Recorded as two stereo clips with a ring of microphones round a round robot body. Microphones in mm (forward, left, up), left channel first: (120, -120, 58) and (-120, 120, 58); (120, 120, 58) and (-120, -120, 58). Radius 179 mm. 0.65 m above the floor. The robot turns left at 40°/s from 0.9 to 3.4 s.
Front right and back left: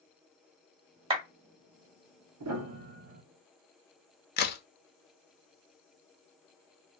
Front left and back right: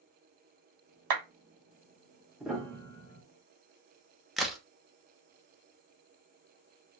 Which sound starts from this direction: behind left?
A piano, at 2.4 s.